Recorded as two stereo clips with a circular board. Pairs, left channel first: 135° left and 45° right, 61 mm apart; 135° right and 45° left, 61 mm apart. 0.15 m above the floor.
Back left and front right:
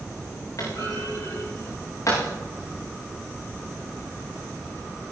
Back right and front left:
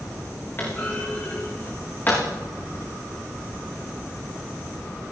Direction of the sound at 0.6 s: 165° left.